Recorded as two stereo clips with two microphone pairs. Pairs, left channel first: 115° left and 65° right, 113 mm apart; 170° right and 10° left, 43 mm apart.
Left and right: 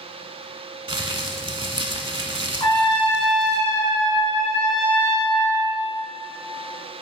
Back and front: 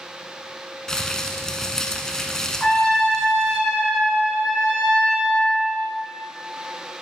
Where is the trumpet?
125° left, 2.5 m.